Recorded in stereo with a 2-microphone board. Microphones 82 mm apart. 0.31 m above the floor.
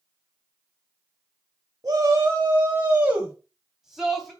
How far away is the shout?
About 2 m.